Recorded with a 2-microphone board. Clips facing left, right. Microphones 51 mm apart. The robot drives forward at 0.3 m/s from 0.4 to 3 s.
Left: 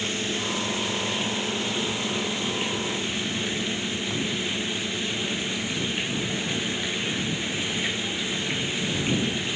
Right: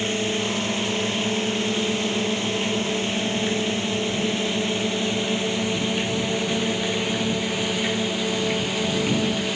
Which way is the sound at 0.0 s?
35° right (ahead or behind).